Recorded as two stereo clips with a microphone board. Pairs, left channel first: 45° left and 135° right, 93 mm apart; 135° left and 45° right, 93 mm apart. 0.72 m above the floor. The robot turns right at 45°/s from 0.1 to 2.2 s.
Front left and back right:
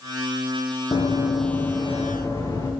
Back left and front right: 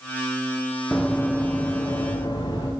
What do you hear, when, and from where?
0.9 s running footsteps: 45° left, 1.2 m; by 2.7 s 95° left, 2.5 m